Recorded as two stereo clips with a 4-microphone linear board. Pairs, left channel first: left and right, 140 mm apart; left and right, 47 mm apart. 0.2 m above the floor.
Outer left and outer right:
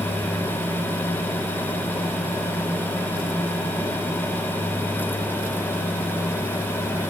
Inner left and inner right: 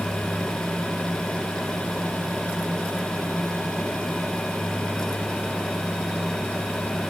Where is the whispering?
I don't hear whispering.